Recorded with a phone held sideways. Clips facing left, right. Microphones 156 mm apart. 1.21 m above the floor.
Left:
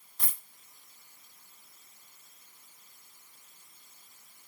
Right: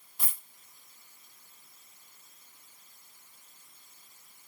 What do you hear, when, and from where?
0.2 s a dropped coin: 5° right (ahead or behind), 1.1 m